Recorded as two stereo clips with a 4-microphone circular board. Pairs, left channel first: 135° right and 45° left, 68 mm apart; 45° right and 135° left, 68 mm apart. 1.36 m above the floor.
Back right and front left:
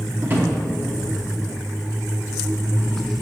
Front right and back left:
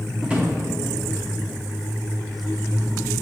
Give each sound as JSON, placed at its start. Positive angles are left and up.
{"t": 0.2, "sound": "a drawer", "azimuth_deg": 75, "distance_m": 1.0}